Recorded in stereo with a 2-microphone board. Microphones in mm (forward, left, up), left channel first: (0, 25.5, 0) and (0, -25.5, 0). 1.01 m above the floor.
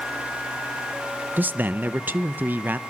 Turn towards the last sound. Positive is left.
turn(degrees=-40)  # may be behind; listen again after turning